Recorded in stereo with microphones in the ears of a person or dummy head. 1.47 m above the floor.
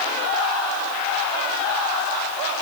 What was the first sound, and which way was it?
Only background noise.